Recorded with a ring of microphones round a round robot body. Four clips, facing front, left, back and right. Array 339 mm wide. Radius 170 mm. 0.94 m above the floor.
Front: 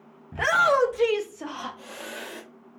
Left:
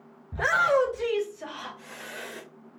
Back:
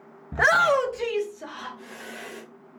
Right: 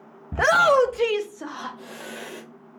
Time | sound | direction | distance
0.3 | a shout | 110° right | 0.8 m